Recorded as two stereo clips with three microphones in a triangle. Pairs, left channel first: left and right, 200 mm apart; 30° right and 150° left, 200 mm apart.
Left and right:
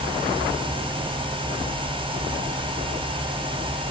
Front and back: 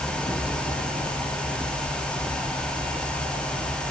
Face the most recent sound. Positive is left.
No sound to turn to.